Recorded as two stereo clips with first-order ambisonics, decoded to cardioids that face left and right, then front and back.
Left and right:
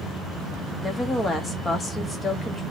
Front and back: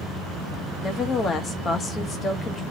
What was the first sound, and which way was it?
A woman speaking, 35° left.